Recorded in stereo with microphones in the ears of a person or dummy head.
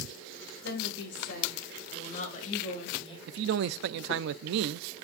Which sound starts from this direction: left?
A woman speaking, at 0.6 s.